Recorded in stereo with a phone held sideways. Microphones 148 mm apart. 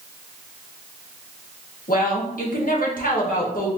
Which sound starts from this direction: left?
A woman speaking, at 1.9 s.